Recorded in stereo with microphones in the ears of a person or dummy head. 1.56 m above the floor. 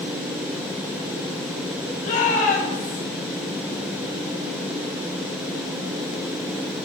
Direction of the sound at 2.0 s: 45° left (ahead or behind).